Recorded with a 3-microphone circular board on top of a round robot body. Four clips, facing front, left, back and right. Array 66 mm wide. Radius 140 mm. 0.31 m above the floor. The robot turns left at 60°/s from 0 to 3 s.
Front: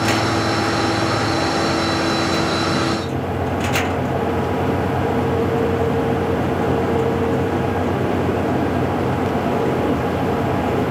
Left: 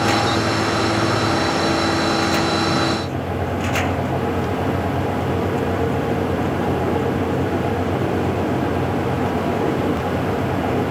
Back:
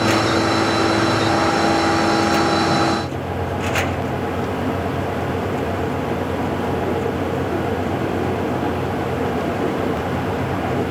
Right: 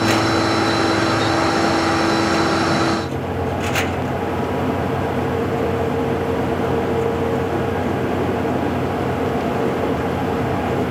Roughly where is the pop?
No pop in this recording.